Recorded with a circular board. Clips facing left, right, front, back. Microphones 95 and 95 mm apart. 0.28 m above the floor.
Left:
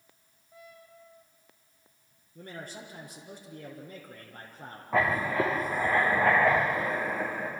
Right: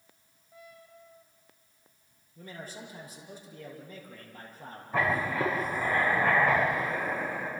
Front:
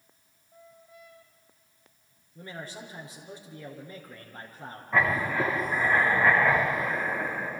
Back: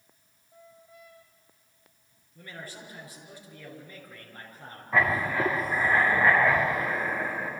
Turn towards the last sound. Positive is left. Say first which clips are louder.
# left 2 dB, even
turn(degrees=95)